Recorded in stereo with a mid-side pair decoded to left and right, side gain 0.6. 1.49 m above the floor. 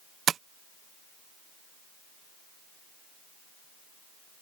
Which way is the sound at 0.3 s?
45° right.